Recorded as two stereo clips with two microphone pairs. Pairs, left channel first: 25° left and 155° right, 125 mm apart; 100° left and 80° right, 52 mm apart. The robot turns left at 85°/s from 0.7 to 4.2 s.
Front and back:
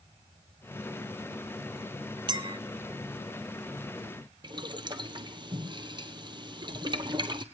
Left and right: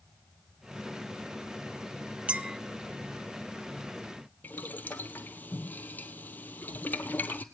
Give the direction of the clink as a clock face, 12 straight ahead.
4 o'clock.